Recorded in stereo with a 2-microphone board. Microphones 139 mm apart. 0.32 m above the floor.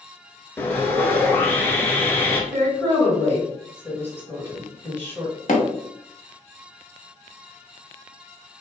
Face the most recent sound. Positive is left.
turn(degrees=65)  # may be behind; listen again after turning